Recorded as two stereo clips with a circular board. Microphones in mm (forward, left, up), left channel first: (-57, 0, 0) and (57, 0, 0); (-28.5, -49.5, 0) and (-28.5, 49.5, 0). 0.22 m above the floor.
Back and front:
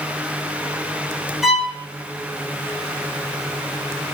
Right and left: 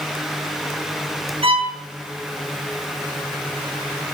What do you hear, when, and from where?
1.4 s a violin: 90° left, 1.6 m